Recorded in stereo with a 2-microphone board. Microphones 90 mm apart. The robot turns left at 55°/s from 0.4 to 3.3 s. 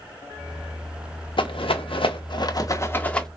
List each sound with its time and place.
1.4 s a rattle: 65° left (ahead or behind), 0.5 m; by 3.3 s 5° left (ahead or behind), 0.5 m